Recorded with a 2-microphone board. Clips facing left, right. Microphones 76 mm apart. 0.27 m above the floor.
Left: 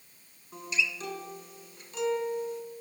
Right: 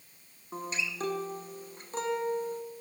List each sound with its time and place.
0.5 s a guitar: 40° right (ahead or behind), 0.8 m